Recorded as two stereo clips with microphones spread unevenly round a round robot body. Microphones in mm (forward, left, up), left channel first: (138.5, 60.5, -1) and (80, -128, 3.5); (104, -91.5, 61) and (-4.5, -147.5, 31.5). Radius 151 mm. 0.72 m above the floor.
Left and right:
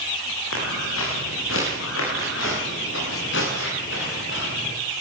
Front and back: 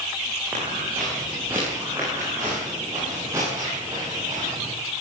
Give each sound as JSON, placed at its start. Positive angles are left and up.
{"t": 0.5, "sound": "footsteps", "azimuth_deg": 125, "distance_m": 9.0}